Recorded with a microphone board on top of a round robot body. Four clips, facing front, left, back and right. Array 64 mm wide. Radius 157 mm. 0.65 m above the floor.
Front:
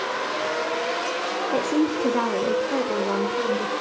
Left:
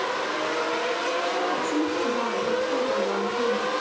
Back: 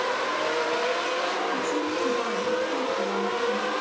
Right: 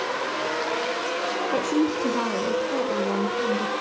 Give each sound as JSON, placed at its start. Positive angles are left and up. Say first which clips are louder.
{"t": 1.5, "sound": "a woman speaking", "louder": "right 2 dB, front 4 dB", "azimuth_deg": -30, "distance_m": 2.5}